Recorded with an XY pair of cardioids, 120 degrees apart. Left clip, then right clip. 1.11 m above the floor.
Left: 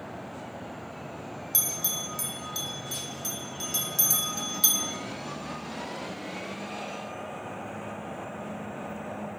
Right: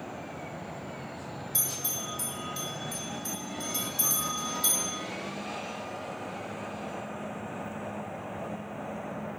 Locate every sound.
1.5 s a bell: 70° left, 1.4 m